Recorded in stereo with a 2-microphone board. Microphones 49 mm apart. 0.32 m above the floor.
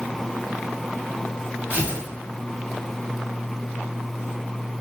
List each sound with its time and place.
1.7 s tearing paper: 45° right (ahead or behind), 2.0 m